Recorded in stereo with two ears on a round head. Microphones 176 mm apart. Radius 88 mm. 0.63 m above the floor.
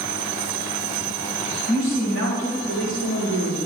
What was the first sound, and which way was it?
A woman speaking, 80° right.